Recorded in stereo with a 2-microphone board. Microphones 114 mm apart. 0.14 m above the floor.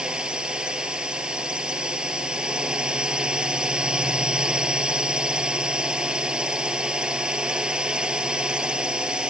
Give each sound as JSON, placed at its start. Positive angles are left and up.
{"t": 0.0, "sound": "a drone", "side_deg": -10}